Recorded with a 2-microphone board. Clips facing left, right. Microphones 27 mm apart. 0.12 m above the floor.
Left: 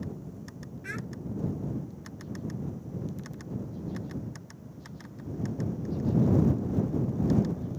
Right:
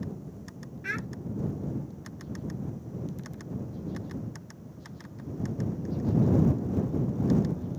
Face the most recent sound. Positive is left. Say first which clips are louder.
# right 5 dB
turn(degrees=-30)  # may be behind; listen again after turning